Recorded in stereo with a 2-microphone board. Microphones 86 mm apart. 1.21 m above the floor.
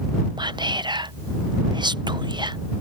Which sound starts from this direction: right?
Whispering, at 0.4 s.